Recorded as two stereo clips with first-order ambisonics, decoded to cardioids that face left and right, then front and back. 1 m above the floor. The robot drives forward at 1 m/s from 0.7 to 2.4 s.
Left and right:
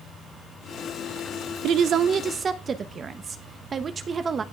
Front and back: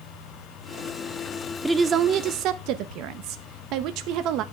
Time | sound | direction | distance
1.6 | a woman speaking | 95° right | 0.6 m